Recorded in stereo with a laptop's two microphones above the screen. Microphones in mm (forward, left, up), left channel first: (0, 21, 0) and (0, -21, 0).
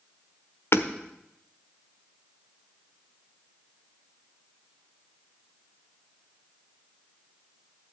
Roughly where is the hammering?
Left.